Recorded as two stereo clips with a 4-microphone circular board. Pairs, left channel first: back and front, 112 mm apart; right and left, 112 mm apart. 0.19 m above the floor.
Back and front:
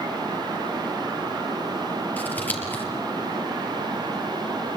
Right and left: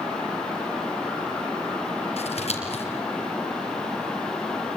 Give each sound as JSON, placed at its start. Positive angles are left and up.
{"t": 2.2, "sound": "scissors", "azimuth_deg": -105, "distance_m": 5.0}